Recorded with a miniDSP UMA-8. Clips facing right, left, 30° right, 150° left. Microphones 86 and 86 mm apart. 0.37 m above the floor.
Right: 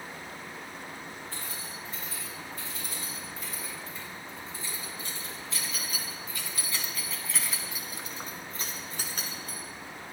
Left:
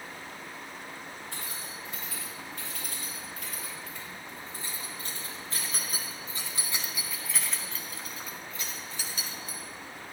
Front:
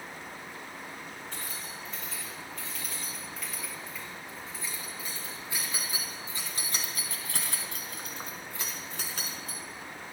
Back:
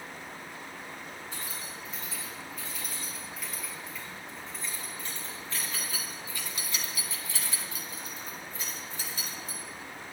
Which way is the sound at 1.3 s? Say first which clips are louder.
Even, even; 70° left.